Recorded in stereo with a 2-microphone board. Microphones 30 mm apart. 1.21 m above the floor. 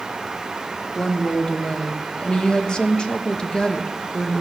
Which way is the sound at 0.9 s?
30° left (ahead or behind).